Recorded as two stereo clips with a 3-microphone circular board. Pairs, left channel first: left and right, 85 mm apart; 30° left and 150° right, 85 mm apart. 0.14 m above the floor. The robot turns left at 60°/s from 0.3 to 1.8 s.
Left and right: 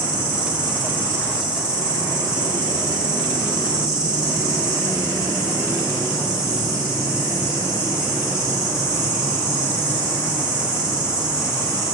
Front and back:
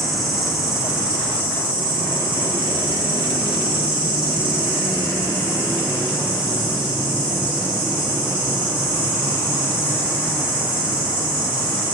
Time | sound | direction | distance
0.0 | an insect | 60° right | 1.9 m